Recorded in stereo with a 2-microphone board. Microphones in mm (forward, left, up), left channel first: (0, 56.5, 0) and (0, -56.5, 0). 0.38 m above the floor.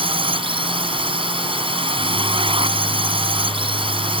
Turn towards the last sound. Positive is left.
turn(degrees=-50)  # may be behind; listen again after turning